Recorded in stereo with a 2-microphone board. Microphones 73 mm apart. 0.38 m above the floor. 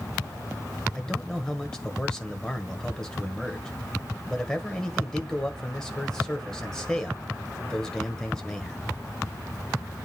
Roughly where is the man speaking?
Centre.